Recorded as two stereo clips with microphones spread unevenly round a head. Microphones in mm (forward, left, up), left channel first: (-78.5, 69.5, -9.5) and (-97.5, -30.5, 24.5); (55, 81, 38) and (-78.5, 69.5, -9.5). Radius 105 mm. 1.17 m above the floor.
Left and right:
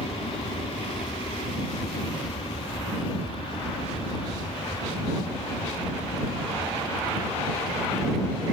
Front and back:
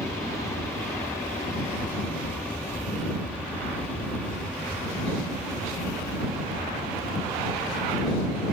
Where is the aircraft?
80° left; by 8.5 s 110° left.